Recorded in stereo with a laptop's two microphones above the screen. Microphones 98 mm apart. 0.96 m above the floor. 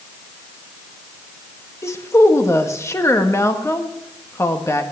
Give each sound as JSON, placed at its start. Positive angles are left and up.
{"t": 1.8, "sound": "a woman speaking", "side_deg": 30, "distance_m": 1.4}